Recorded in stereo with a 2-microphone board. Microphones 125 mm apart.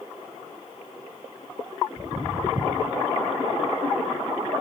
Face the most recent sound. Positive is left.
turn(degrees=-65)  # may be behind; listen again after turning